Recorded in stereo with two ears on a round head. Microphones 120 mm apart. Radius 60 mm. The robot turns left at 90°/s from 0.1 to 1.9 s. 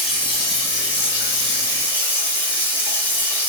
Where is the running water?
Straight behind, 1.7 m; by 3.5 s 20° left, 1.7 m.